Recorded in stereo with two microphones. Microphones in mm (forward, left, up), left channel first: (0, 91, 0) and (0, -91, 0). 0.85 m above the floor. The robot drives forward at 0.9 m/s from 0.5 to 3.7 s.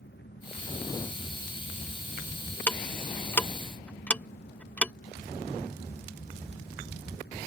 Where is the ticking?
10° left (ahead or behind).